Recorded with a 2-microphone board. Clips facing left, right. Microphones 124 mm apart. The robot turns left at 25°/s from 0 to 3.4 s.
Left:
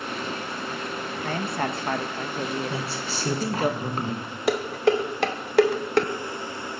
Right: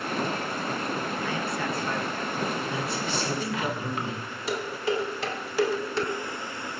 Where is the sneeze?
No sneeze in this recording.